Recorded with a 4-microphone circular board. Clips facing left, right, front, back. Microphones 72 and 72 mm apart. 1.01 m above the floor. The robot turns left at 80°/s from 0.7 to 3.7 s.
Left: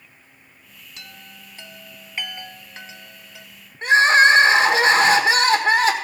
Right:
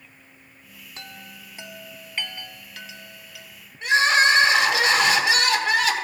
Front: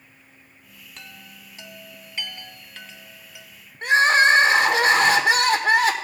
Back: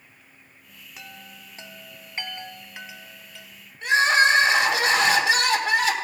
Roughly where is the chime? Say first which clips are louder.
Right 2 dB, back 1 dB; right.